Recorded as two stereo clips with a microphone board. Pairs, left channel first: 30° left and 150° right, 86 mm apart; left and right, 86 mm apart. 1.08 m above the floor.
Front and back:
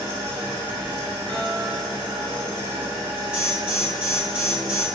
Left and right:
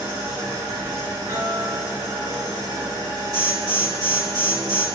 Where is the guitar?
45° right, 1.7 m.